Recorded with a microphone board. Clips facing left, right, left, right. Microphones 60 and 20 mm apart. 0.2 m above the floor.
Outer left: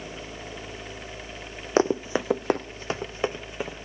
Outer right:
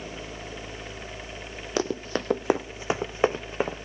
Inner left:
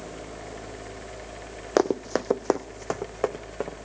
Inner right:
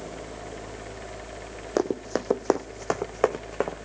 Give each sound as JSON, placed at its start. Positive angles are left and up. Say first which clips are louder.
{"t": 1.8, "sound": "running footsteps", "louder": "outer left 5 dB, inner left 3 dB", "side_deg": 30, "distance_m": 0.6}